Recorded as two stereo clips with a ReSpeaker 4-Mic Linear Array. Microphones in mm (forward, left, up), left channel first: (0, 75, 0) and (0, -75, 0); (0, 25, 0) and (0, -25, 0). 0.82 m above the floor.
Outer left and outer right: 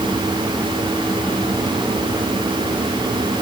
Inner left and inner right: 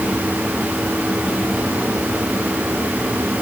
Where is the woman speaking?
No woman speaking in this recording.